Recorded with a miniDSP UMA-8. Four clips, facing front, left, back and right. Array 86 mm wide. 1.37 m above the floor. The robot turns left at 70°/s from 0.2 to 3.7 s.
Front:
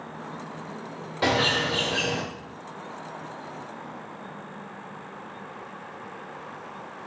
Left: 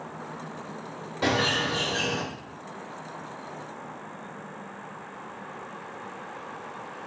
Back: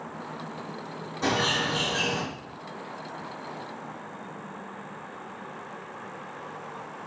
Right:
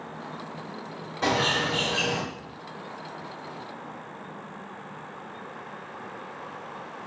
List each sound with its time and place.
1.2 s a bird: 10° left, 1.1 m; by 2.2 s 60° right, 1.1 m